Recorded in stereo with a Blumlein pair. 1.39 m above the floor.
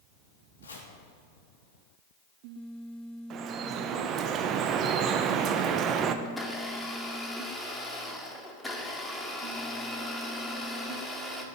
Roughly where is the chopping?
Left.